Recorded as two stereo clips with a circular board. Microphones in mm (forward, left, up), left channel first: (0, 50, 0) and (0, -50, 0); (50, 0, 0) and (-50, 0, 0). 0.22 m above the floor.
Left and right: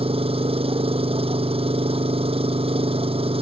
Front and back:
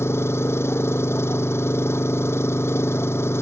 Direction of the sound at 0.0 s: 65° right.